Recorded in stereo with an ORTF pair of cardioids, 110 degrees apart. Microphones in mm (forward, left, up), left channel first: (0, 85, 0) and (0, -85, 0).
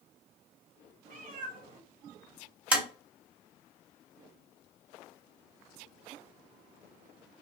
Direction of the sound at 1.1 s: 60° right.